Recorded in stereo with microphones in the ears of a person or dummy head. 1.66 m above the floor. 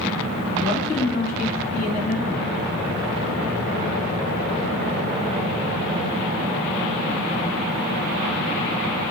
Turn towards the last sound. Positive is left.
turn(degrees=40)  # may be behind; listen again after turning